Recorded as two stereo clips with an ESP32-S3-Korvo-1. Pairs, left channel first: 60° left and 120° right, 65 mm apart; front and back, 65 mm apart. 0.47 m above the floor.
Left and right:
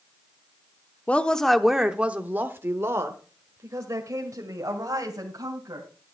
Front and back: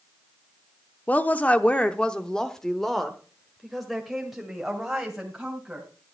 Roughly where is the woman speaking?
Ahead left.